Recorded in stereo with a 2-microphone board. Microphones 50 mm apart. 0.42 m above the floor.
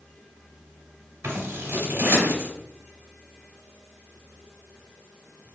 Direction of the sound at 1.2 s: 65° right (ahead or behind).